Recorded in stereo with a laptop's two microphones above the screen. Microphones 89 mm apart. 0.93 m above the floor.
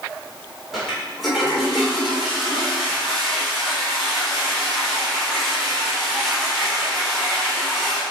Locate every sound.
0.7 s a toilet flushing: centre (ahead or behind), 3.5 m